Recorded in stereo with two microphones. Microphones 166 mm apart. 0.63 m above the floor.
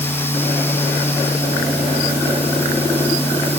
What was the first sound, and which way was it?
Only background noise.